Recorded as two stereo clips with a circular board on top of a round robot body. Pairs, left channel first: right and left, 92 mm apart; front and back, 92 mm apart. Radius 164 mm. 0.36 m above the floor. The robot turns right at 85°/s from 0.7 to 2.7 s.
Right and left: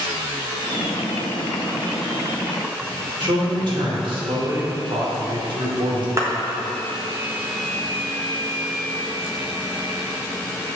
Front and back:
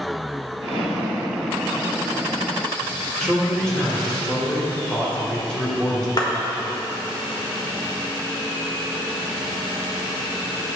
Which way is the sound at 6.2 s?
35° left.